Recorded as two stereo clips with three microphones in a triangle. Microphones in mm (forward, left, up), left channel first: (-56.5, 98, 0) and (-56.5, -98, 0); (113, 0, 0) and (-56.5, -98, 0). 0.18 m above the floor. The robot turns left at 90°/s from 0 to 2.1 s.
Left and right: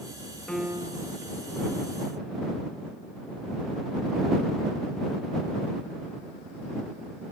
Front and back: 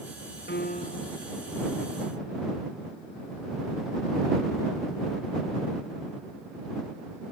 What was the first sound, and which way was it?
A piano, 5° left.